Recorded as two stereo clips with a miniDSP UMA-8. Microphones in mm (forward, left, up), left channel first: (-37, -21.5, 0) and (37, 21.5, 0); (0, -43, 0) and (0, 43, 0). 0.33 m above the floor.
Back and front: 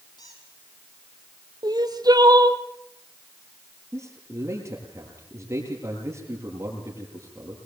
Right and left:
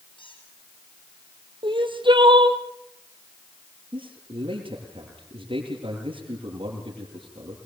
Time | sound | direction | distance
0.2 | a squeak | 110° right | 9.5 m
1.6 | crying | 70° left | 2.5 m
3.9 | a man speaking | 85° left | 8 m